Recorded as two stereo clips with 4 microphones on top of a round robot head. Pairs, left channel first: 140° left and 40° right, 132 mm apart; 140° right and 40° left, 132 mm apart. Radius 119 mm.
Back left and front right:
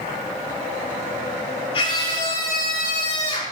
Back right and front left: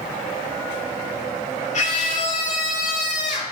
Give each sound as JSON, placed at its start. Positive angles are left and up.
{"t": 1.7, "sound": "a scream", "azimuth_deg": -170, "distance_m": 8.0}